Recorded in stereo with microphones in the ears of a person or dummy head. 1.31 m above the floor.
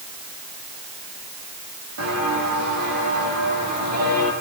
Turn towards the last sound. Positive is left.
turn(degrees=-40)  # may be behind; listen again after turning